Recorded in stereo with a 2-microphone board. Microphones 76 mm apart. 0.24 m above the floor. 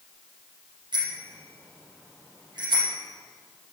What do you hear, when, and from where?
0.9 s a bicycle bell: 80° right, 5.5 m